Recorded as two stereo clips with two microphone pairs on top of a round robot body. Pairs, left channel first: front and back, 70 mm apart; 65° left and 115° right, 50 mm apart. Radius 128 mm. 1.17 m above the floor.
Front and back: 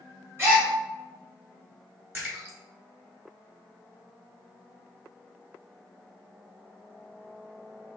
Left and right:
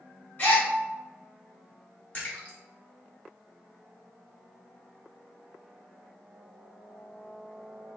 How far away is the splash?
About 1.4 m.